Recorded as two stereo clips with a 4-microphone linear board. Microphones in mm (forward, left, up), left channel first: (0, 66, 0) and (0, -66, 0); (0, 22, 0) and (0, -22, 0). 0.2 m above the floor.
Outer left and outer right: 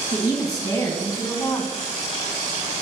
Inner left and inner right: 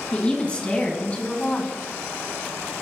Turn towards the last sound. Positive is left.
turn(degrees=25)  # may be behind; listen again after turning